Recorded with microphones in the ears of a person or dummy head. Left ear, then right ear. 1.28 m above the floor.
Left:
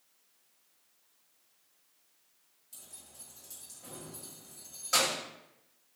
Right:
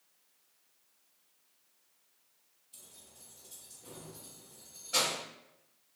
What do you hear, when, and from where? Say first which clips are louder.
2.7 s keys jangling: left 3 dB; 55° left (ahead or behind), 1.3 m